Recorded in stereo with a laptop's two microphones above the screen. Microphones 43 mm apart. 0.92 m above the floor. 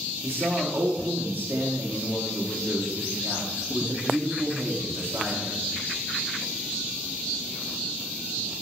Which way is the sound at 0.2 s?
55° right (ahead or behind).